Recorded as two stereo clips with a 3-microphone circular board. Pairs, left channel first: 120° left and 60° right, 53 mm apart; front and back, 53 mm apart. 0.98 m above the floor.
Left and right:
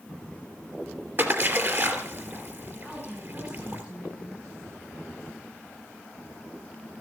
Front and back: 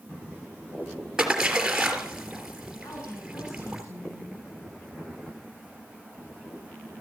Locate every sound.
1.2 s a splash: 105° right, 3 m
2.8 s a woman speaking: 15° left, 9 m